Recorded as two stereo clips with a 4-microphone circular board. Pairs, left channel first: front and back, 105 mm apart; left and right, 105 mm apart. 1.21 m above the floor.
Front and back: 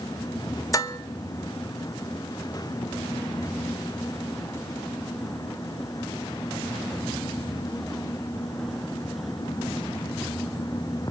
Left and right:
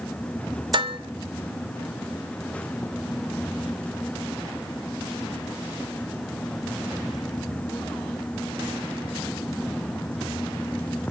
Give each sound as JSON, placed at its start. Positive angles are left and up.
{"t": 0.7, "sound": "dishes clattering", "azimuth_deg": -55, "distance_m": 0.7}